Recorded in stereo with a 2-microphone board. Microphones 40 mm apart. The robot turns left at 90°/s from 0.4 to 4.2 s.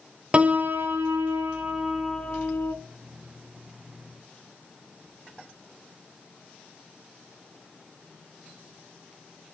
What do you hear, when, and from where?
0.3 s a piano: 30° right, 0.9 m; by 2.7 s 120° left, 0.9 m